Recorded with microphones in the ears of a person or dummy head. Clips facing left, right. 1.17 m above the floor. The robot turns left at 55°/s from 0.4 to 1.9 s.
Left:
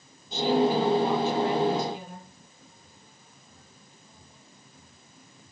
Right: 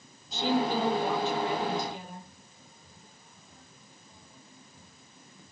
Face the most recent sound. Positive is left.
turn(degrees=95)